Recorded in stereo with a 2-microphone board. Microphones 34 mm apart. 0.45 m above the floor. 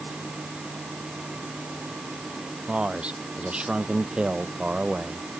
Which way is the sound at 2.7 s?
30° right (ahead or behind).